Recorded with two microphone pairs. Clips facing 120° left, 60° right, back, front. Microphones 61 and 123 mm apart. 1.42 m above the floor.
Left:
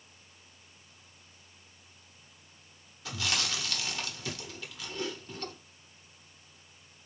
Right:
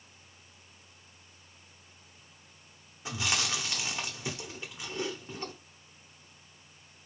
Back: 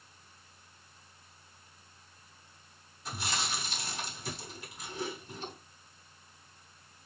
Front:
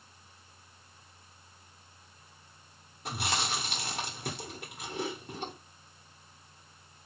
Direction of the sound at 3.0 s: 5° left.